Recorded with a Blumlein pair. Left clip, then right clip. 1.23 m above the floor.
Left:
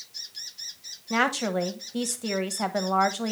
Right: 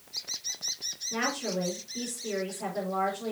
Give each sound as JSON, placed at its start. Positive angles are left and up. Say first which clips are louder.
{"t": 1.1, "sound": "a woman speaking", "louder": "left 7 dB", "azimuth_deg": 50, "distance_m": 1.2}